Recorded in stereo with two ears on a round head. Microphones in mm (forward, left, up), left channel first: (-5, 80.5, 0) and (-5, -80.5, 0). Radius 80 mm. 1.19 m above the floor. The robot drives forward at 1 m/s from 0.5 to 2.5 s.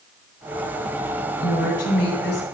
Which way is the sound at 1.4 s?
60° left (ahead or behind).